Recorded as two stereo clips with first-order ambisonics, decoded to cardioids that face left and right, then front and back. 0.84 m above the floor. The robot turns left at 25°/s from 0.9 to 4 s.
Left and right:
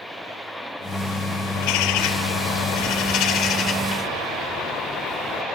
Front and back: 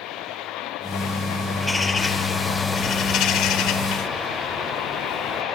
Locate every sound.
1.6 s a bird: 85° left, 1.2 m; by 5.4 s 25° left, 1.2 m